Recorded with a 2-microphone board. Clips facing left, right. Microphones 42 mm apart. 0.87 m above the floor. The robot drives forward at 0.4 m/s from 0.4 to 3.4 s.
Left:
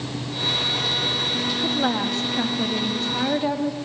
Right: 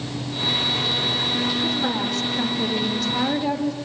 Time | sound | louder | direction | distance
1.6 | a woman speaking | left 1 dB | 30° left (ahead or behind) | 1.5 m